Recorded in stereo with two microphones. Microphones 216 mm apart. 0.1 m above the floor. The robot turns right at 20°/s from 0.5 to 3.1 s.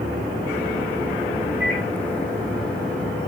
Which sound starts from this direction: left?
A microwave, at 1.6 s.